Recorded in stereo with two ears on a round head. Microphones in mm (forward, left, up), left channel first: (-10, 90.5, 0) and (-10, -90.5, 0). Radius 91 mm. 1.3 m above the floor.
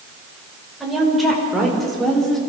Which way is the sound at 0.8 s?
Centre (ahead or behind).